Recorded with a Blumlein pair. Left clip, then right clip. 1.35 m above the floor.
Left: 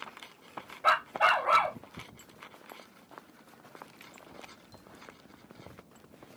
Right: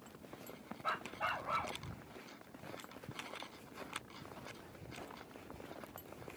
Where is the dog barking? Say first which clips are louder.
Left 14 dB; 55° left.